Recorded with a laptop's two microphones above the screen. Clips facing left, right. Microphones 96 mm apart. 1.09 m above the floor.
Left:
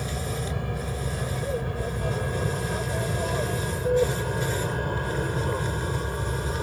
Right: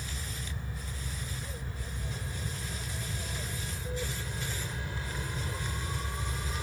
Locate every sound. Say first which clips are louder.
0.0 s an aircraft: left 12 dB; 75° left (ahead or behind); by 6.6 s 50° left (ahead or behind)